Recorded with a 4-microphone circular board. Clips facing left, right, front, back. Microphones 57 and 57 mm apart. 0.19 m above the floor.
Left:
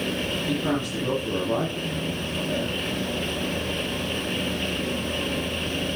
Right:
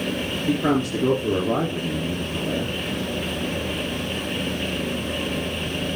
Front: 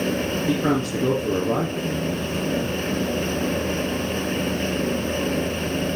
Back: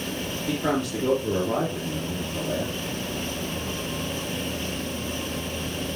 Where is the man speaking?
55° right, 4 m.